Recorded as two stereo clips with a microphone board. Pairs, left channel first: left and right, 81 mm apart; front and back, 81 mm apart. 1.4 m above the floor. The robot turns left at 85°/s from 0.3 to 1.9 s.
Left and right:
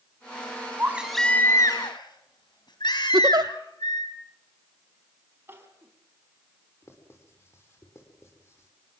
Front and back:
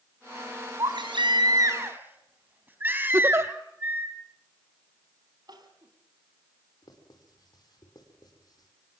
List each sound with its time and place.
0.8 s a baby crying: 150° right, 4 m; by 4.1 s 115° left, 4 m
3.1 s a giggle: 125° right, 0.9 m
5.5 s crying: 150° right, 4 m
6.8 s writing: 35° left, 6 m